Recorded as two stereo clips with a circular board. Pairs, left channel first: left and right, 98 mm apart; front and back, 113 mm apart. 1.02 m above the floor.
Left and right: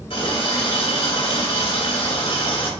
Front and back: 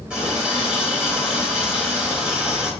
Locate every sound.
0.1 s a running tap: 100° left, 3 m